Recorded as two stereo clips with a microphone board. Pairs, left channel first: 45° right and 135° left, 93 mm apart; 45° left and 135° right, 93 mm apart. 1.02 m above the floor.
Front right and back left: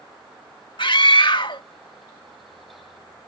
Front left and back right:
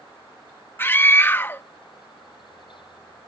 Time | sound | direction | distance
0.8 | a scream | 20° right | ?